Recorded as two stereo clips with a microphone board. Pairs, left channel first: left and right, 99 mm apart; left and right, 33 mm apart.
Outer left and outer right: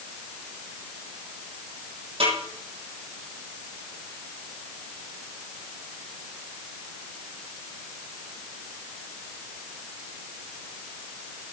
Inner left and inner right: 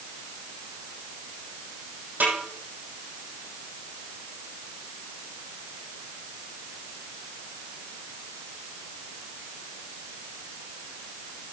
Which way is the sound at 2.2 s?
75° right (ahead or behind).